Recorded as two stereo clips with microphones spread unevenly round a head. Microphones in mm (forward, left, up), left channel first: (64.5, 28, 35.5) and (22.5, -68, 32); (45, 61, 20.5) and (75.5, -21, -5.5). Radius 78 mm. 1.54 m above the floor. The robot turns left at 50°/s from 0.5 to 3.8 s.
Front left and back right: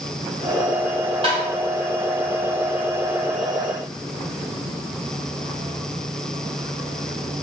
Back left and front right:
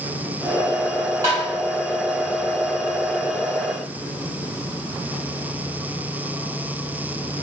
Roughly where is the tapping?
Behind right.